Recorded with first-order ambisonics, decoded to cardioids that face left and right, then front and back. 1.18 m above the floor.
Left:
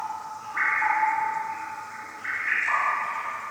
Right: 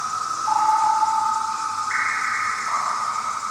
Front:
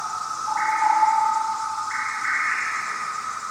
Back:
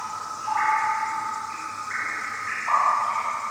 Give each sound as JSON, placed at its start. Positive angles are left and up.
{"t": 0.0, "sound": "an insect", "azimuth_deg": -70}